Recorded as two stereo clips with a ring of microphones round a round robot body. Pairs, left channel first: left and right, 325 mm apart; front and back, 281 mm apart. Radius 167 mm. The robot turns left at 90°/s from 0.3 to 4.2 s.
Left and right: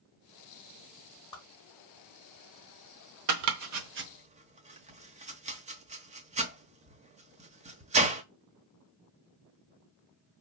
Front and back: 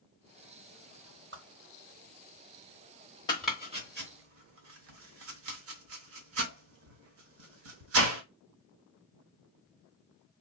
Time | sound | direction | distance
1.3 | a whoosh | 160° left | 1.9 m
3.3 | chopping | 75° right | 0.9 m